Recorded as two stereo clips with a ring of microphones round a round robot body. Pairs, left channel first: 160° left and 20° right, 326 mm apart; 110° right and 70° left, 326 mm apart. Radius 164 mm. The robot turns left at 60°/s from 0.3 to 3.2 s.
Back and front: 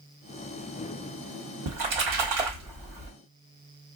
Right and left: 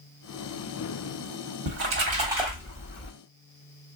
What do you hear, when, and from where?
1.7 s a splash: 25° left, 1.2 m; by 3.1 s 60° right, 1.2 m